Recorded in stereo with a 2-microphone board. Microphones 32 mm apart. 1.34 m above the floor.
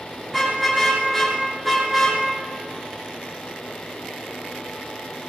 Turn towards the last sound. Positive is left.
turn(degrees=0)  # may be behind; listen again after turning